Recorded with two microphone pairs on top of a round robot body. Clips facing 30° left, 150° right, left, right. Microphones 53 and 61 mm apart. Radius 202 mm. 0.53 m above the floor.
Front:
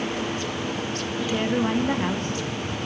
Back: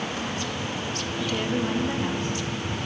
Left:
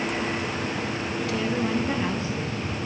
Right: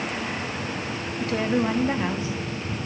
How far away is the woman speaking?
About 1.0 m.